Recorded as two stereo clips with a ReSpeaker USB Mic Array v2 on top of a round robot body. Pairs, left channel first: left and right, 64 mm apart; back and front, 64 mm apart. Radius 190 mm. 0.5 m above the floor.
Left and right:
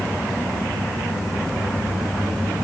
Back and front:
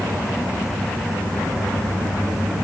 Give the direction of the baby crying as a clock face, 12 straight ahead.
No baby crying in this recording.